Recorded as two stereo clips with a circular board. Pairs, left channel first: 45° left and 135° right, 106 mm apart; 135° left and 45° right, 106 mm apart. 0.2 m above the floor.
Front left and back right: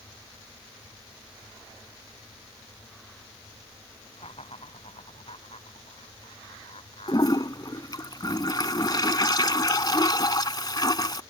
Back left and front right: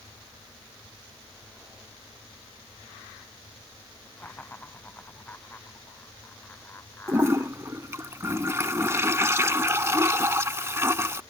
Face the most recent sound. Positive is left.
turn(degrees=10)